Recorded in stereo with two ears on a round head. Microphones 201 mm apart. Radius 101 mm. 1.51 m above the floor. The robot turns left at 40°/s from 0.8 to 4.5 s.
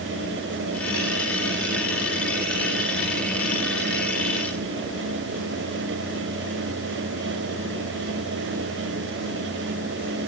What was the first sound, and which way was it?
Only background noise.